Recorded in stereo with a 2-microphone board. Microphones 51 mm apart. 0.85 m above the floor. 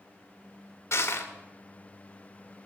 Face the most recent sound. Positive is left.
turn(degrees=60)  # may be behind; listen again after turning